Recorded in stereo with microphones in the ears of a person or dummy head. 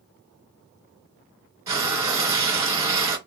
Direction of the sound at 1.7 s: 20° right (ahead or behind).